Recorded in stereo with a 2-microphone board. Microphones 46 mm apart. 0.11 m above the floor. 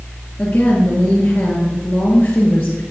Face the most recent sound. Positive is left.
turn(degrees=35)  # may be behind; listen again after turning